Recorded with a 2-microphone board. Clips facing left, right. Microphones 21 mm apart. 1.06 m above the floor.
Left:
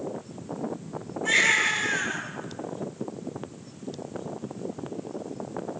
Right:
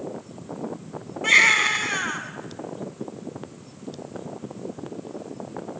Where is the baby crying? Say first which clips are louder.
Right 5 dB; 70° right (ahead or behind), 5.5 m.